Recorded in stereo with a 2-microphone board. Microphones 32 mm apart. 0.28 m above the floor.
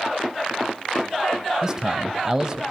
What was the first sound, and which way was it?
A man speaking, 25° right (ahead or behind).